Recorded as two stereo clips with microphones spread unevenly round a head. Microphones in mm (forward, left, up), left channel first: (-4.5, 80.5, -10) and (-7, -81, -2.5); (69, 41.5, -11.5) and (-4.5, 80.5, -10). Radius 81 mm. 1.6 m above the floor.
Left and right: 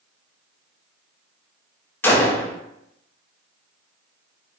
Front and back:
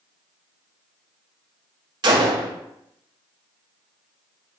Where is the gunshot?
165° left, 0.7 m.